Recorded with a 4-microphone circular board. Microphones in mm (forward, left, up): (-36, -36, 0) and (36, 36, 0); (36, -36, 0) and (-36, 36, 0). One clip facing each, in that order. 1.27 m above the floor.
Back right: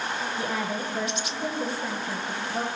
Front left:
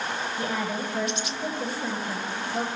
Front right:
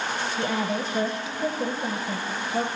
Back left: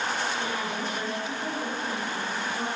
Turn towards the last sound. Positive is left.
turn(degrees=-50)